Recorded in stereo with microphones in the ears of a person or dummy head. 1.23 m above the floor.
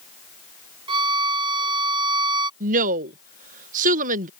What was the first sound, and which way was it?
A violin, 25° right (ahead or behind).